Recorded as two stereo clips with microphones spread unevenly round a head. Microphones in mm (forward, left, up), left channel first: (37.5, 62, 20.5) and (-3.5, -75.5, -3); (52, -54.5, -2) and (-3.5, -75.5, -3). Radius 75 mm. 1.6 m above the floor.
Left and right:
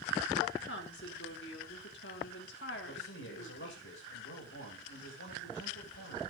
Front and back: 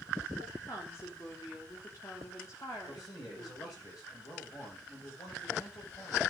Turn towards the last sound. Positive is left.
turn(degrees=75)